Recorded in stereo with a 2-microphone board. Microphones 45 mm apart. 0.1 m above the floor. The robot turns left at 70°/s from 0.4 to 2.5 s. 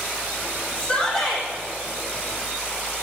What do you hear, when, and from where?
0.8 s a shout: 35° left, 5 m; by 1.5 s 15° right, 5 m